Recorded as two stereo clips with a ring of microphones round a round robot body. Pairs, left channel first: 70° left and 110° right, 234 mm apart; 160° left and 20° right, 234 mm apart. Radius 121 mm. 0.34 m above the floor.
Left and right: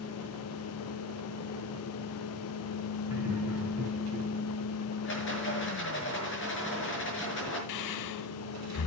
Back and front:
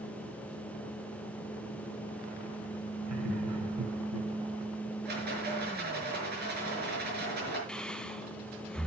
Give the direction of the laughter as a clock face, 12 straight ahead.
1 o'clock.